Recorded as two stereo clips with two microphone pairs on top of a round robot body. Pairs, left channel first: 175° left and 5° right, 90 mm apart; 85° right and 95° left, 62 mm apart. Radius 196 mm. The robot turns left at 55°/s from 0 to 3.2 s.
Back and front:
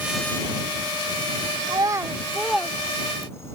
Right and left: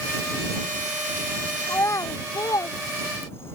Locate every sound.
1.7 s a child speaking: 45° right; by 3.6 s 130° right